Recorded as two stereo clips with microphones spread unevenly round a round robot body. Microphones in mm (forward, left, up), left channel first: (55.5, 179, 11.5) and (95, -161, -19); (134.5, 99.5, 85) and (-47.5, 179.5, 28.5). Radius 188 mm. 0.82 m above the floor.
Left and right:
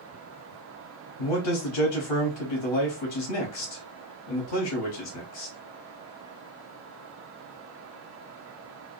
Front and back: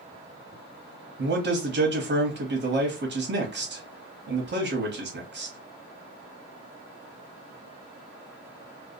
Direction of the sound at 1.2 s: 125° left.